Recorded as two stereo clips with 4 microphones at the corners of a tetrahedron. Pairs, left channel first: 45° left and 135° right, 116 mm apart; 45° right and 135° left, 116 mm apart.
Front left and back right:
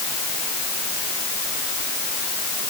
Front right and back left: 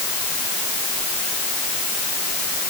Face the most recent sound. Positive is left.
No sound to turn to.